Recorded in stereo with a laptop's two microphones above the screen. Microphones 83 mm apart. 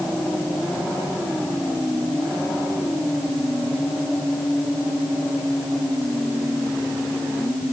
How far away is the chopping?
No chopping in this recording.